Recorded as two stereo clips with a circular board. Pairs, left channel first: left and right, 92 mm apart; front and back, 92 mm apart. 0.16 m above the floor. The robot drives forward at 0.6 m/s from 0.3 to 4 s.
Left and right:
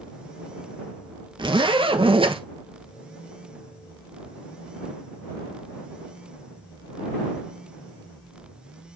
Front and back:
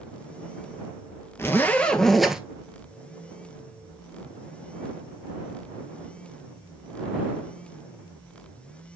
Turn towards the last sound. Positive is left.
turn(degrees=-140)